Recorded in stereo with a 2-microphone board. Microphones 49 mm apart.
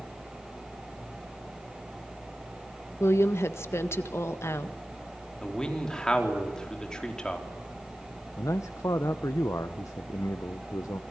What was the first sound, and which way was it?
A woman speaking, 60° left (ahead or behind).